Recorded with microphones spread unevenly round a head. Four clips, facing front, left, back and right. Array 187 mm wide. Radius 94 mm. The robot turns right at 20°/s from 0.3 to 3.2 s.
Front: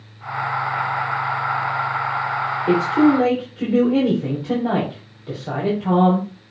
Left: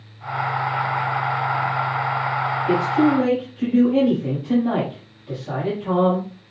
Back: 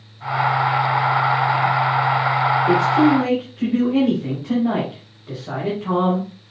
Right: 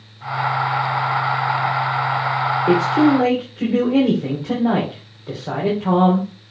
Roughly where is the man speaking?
Right.